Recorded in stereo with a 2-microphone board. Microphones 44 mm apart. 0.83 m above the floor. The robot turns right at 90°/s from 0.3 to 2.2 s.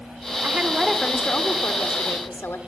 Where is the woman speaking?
40° right, 1.8 m; by 2.6 s 120° left, 1.8 m.